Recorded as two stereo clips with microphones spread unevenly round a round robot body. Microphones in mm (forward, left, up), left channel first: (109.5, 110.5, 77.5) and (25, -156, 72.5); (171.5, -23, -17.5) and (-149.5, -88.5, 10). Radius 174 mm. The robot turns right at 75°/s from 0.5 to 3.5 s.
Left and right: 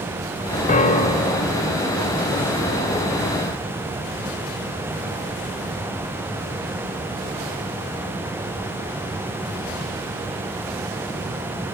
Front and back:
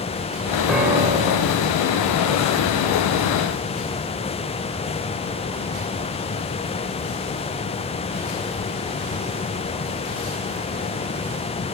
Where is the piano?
90° left, 0.7 m; by 1.5 s 155° left, 0.7 m.